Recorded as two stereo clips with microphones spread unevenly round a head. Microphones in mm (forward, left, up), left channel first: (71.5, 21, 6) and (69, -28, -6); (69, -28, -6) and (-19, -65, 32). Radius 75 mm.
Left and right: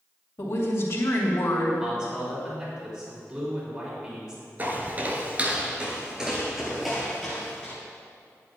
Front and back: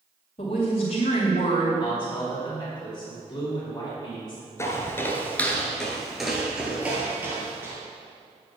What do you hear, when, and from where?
0.4 s a woman speaking: 65° left, 2.5 m
1.8 s a man speaking: 35° right, 3.5 m
4.6 s footsteps: 55° right, 1.3 m; by 7.8 s 155° left, 2.0 m